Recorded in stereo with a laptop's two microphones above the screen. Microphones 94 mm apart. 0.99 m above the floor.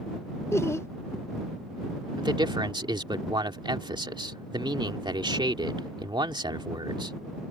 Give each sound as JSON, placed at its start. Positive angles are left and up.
{"t": 0.5, "sound": "laughter", "side_deg": 30}
{"t": 2.2, "sound": "a man speaking", "side_deg": -60}